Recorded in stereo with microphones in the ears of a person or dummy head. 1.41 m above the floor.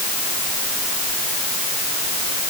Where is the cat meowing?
I don't hear a cat meowing.